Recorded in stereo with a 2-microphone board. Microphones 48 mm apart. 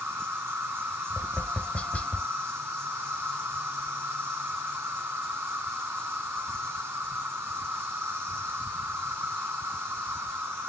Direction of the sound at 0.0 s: 60° right (ahead or behind).